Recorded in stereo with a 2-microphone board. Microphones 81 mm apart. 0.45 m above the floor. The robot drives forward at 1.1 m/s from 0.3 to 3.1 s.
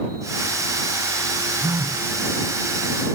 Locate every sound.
1.6 s a phone buzzing: 40° right (ahead or behind), 0.9 m; by 2.0 s 55° right (ahead or behind), 0.7 m